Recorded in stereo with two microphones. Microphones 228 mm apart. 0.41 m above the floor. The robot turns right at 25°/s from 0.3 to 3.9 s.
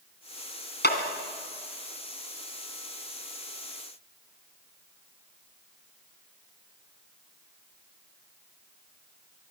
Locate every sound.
0.8 s a clap: 50° left (ahead or behind), 2.5 m; by 1.0 s 45° left (ahead or behind), 2.5 m